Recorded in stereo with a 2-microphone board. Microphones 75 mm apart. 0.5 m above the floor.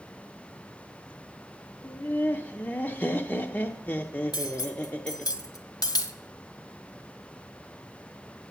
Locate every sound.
1.8 s laughter: 30° left (ahead or behind), 0.8 m
4.3 s cutlery clinking: 75° left (ahead or behind), 1.7 m